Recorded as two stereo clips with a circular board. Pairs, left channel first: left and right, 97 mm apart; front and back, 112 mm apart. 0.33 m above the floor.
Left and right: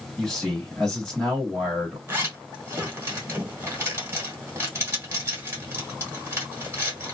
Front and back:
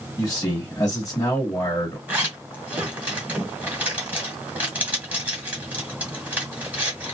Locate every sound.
0.2 s a man speaking: 10° left, 1.5 m
2.1 s a zipper: 120° right, 1.6 m